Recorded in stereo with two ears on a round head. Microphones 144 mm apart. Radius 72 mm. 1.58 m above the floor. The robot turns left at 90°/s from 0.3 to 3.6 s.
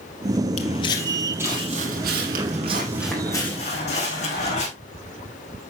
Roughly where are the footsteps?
Left.